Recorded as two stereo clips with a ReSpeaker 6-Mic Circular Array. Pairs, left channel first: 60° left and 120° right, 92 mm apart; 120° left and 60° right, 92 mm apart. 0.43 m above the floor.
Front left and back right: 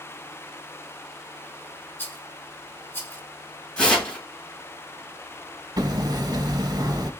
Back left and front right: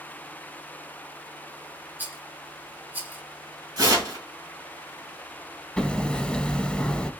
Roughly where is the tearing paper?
Ahead.